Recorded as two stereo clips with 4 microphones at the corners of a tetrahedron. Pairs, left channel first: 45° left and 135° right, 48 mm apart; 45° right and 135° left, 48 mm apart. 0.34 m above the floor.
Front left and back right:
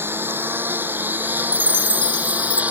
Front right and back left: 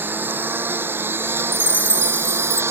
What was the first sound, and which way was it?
A lawn mower, straight behind.